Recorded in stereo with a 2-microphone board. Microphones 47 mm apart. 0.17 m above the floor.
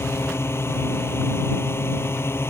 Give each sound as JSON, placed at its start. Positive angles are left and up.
{"t": 0.0, "sound": "a drone", "side_deg": 60}